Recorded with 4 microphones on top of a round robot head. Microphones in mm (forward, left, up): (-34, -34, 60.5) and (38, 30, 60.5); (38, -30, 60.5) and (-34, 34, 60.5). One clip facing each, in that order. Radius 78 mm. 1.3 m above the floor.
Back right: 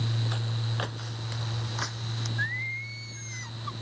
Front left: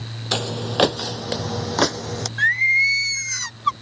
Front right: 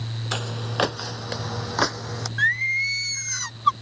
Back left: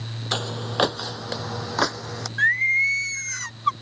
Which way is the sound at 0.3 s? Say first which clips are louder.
Front left 11 dB, back left 2 dB; 65° left.